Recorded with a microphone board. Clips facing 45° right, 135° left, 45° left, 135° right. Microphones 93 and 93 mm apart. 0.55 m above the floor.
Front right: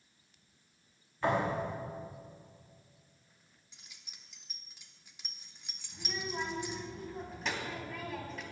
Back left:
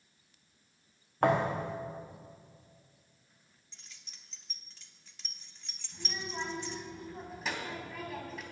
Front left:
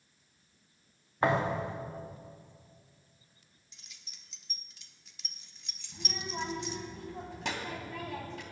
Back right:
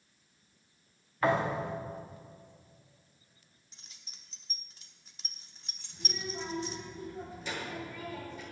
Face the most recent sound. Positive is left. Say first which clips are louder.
# front right 2 dB, front left 1 dB
turn(degrees=45)